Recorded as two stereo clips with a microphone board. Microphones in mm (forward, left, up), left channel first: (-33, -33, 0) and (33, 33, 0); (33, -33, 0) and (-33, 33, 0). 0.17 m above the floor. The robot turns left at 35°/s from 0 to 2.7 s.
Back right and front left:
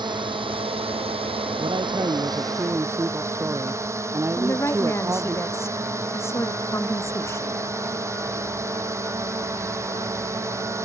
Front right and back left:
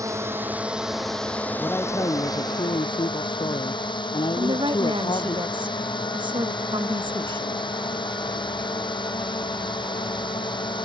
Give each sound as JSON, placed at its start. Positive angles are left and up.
{"t": 0.0, "sound": "a drone", "azimuth_deg": 80}
{"t": 1.6, "sound": "a man speaking", "azimuth_deg": 25}
{"t": 4.4, "sound": "a woman speaking", "azimuth_deg": 165}